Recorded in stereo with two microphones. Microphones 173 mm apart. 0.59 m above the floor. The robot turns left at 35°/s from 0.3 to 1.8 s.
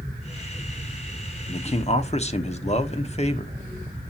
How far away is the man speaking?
About 0.8 m.